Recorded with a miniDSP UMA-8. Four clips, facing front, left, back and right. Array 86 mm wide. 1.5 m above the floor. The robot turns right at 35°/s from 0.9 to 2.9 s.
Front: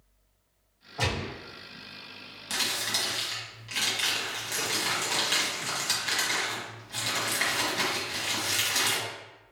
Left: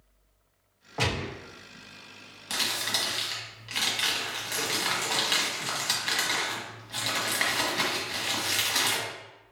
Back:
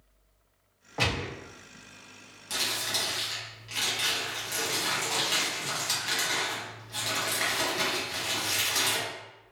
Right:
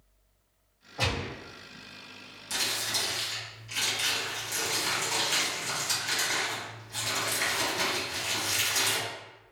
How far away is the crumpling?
About 1.2 m.